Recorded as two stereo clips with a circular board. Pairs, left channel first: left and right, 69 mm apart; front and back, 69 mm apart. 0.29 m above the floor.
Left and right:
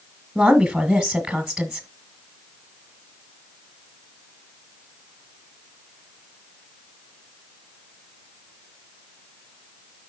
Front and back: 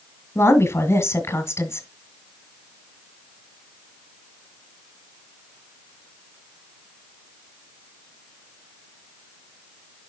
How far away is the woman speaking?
About 1.2 m.